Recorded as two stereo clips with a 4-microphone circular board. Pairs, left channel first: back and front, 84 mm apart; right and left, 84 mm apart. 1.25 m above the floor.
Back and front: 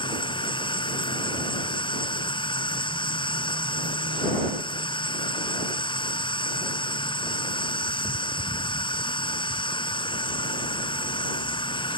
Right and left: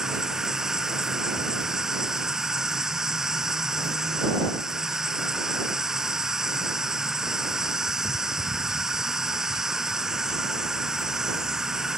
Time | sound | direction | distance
0.0 | an insect | 175° left | ?